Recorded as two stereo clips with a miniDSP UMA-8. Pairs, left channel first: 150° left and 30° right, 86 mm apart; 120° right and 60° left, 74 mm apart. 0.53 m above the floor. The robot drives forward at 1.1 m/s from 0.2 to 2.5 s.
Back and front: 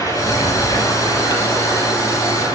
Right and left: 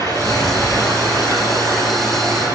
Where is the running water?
165° right, 5.5 m; by 2.5 s 170° right, 8 m.